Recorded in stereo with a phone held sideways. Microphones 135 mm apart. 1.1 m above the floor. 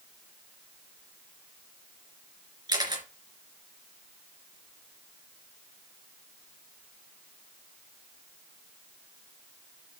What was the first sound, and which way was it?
A camera shutter, 30° right (ahead or behind).